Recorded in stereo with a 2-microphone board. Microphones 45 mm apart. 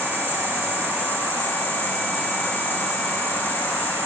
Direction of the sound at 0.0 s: 35° left (ahead or behind).